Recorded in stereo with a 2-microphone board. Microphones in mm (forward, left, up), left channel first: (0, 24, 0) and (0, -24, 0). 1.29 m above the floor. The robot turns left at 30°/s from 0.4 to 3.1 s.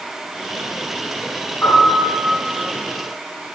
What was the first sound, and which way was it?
A piano, 50° left (ahead or behind).